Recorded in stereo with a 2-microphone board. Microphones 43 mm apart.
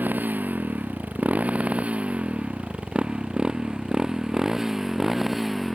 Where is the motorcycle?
45° right (ahead or behind); by 5.7 s centre (ahead or behind).